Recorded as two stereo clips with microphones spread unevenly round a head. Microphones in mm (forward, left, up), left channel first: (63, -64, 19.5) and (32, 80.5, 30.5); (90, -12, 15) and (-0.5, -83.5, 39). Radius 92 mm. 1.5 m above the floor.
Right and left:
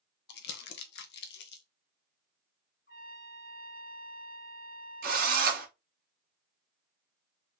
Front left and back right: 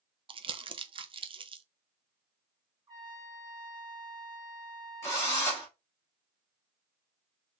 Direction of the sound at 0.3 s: 95° right.